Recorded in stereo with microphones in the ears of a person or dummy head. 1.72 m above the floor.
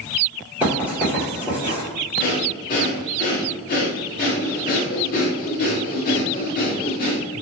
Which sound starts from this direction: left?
Breathing, at 2.2 s.